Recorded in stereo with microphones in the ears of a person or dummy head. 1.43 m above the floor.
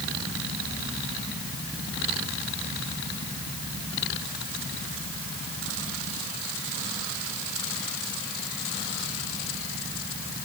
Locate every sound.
Only background noise.